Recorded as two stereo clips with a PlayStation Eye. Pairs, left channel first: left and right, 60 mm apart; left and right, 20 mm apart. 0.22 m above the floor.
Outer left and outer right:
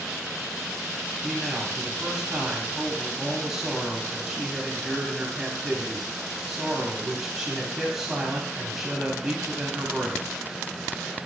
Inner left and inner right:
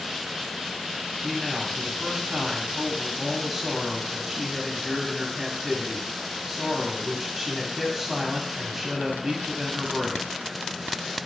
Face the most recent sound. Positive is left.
turn(degrees=-5)  # may be behind; listen again after turning